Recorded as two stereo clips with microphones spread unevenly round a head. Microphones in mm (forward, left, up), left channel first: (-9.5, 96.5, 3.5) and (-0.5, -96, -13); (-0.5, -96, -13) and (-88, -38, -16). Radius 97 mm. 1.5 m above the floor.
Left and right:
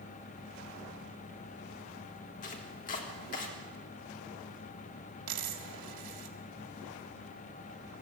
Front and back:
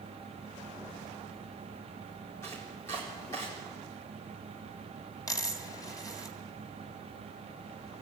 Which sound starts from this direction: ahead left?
Chopping, at 2.4 s.